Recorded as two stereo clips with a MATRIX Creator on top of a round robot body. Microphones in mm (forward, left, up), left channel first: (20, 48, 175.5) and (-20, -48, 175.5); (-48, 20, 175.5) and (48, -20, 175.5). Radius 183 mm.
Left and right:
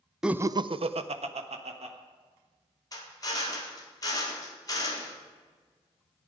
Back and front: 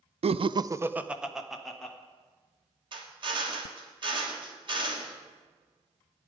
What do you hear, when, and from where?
0.2 s laughter: 30° right, 0.5 m; by 1.9 s 120° right, 1.4 m
2.9 s a drill: 15° left, 2.0 m